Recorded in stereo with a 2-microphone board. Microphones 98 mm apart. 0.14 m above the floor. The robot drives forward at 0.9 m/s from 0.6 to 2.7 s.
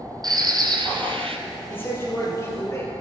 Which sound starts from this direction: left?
A man speaking, at 1.7 s.